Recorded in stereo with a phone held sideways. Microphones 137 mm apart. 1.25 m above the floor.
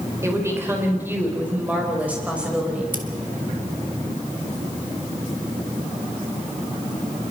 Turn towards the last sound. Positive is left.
turn(degrees=-85)